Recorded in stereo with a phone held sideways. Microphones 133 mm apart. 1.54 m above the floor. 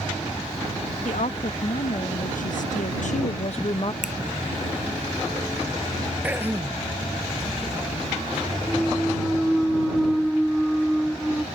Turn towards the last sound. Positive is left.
turn(degrees=0)  # may be behind; listen again after turning